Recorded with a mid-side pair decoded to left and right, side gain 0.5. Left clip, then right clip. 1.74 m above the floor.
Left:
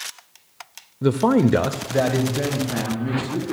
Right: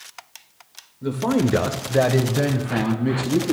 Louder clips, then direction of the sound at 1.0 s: Left 4 dB; 60° left.